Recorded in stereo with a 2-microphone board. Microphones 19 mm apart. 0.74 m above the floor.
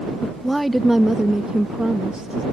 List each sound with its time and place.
0.2 s a woman speaking: 20° left (ahead or behind); by 2.4 s 50° right (ahead or behind)